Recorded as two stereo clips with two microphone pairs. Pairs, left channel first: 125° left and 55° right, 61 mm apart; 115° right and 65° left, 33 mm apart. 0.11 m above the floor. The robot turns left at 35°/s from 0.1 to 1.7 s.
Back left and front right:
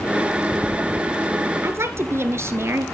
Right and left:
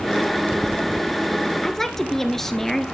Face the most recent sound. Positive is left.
turn(degrees=-40)